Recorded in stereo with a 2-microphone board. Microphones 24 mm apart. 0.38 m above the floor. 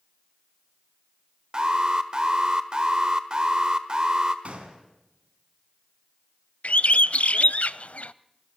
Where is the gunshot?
60° right (ahead or behind), 3.5 m.